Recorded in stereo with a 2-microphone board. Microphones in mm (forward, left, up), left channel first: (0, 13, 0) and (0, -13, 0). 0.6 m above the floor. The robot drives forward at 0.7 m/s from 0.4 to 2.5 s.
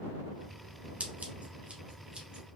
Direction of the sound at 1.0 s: 55° right (ahead or behind).